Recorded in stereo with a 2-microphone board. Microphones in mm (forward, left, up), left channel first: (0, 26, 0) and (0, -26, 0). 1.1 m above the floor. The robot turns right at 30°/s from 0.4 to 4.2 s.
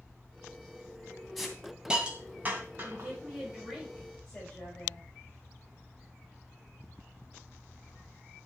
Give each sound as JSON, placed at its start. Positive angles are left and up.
{"t": 1.4, "sound": "a hiss", "side_deg": 0, "distance_m": 2.5}
{"t": 2.8, "sound": "a woman speaking", "azimuth_deg": -35, "distance_m": 6.0}